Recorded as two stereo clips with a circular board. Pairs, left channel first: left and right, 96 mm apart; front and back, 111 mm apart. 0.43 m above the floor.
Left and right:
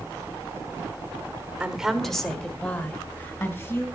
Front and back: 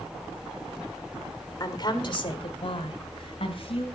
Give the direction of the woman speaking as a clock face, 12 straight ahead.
1 o'clock.